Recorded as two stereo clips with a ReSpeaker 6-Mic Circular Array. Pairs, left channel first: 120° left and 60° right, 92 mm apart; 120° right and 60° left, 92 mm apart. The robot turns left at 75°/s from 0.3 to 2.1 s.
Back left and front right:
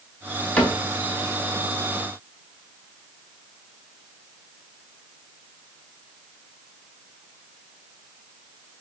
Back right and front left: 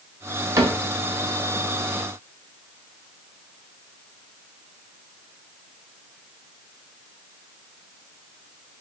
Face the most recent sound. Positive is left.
turn(degrees=-55)